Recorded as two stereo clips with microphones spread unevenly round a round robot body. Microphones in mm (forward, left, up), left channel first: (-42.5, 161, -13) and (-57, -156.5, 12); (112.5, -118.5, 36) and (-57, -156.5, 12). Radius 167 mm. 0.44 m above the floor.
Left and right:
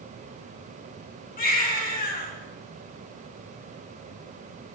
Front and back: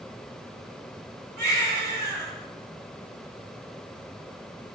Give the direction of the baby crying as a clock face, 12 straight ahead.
7 o'clock.